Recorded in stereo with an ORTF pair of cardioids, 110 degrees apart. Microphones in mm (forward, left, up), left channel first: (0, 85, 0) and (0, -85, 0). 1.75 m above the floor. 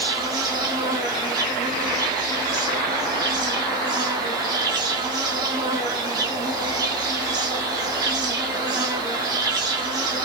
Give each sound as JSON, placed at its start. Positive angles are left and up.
{"t": 0.0, "sound": "an insect", "azimuth_deg": -25, "distance_m": 0.8}